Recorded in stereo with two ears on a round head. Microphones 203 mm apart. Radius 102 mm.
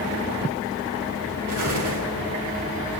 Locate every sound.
1.5 s an explosion: 85° right, 6 m